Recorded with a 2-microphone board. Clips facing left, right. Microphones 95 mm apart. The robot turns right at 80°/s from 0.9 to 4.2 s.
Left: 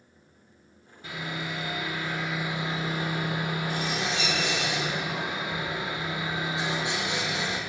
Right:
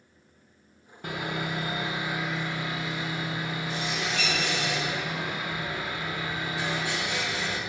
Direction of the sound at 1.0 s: 100° right.